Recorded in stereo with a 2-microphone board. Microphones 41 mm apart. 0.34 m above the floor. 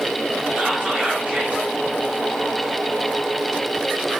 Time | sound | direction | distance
0.6 | whispering | 45° right (ahead or behind) | 1.2 m